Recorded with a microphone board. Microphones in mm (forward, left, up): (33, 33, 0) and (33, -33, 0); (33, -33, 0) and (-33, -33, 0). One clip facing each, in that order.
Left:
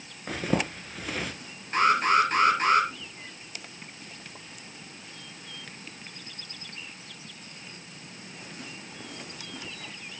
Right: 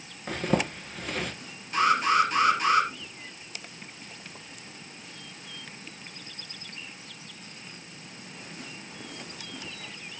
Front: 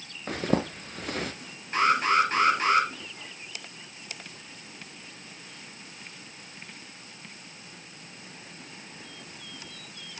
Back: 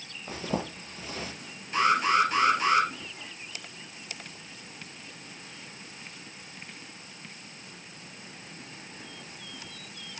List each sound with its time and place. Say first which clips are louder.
0.3 s a zipper: right 1 dB, front 5 dB; 5° left, 1.1 m
1.7 s an alarm: left 1 dB, front 1 dB; 45° left, 3.5 m